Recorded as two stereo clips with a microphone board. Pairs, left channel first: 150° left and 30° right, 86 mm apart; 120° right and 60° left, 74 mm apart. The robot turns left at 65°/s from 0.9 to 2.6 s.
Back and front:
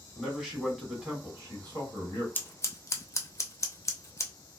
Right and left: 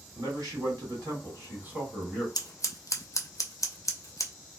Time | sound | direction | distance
0.1 | a man speaking | 55° left | 1.6 m
2.4 | scissors | 145° right | 0.5 m